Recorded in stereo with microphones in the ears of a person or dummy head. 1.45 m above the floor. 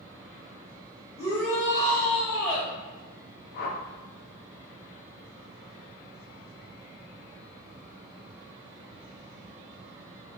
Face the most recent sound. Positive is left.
turn(degrees=50)  # may be behind; listen again after turning